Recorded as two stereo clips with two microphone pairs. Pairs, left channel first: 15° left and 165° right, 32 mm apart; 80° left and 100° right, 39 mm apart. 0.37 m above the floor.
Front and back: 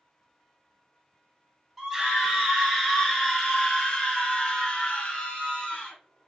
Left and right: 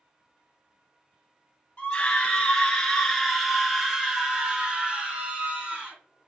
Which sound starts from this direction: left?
A scream, at 1.8 s.